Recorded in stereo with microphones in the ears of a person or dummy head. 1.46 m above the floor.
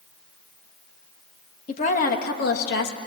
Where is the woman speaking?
40° left (ahead or behind), 2.5 m; by 3.0 s 70° left (ahead or behind), 2.5 m.